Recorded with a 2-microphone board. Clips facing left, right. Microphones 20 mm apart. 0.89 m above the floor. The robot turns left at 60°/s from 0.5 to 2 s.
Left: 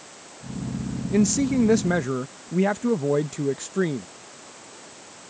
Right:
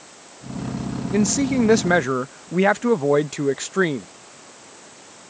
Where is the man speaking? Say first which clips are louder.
Right 1 dB; 20° right; by 4.1 s 70° right.